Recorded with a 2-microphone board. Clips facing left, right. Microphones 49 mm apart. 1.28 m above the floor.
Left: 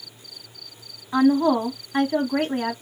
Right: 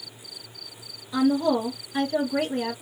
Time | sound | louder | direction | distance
1.1 | a woman speaking | left 4 dB | 35° left (ahead or behind) | 1.1 m